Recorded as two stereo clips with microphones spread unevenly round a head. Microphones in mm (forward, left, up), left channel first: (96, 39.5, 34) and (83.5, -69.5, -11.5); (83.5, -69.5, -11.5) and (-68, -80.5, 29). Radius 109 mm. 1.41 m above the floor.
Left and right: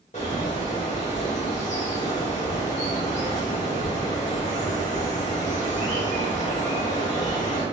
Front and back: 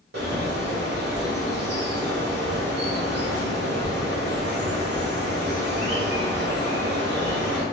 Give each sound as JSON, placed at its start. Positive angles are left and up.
{"t": 0.1, "sound": "a bird", "azimuth_deg": 140, "distance_m": 1.1}